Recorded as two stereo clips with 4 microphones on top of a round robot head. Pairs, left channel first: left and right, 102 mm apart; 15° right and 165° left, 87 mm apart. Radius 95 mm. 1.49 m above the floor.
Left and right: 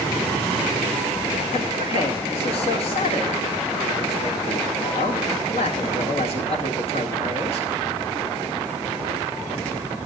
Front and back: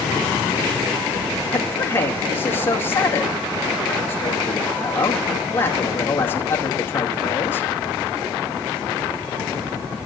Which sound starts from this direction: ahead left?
A man speaking, at 1.5 s.